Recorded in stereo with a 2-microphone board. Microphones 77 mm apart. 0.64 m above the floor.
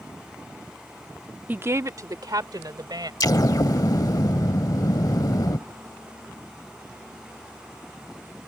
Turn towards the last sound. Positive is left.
turn(degrees=55)  # may be behind; listen again after turning